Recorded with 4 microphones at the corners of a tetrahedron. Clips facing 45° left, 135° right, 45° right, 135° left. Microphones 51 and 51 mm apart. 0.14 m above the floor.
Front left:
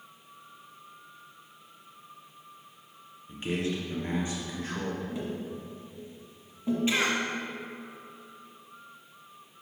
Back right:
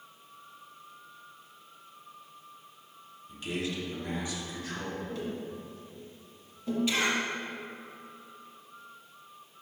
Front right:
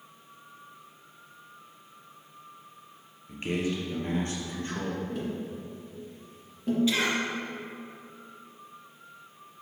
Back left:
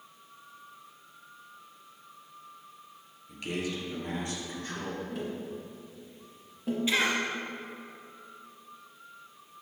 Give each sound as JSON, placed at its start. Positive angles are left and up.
{"t": 3.3, "sound": "a man speaking", "azimuth_deg": 0, "distance_m": 1.7}
{"t": 5.1, "sound": "tapping", "azimuth_deg": 60, "distance_m": 1.8}
{"t": 6.9, "sound": "a cough", "azimuth_deg": 80, "distance_m": 1.8}